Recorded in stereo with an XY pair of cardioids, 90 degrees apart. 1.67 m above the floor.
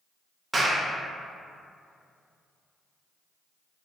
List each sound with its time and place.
0.5 s a clap: 30° right, 0.6 m